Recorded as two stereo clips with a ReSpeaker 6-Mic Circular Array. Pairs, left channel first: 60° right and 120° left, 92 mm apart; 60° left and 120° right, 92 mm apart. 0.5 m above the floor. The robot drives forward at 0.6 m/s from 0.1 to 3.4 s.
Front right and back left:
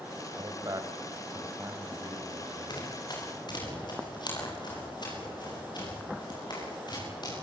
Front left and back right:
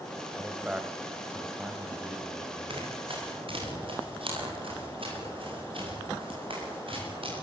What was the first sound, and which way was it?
A man speaking, 165° left.